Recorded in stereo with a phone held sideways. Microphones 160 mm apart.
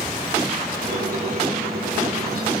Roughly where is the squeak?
Right.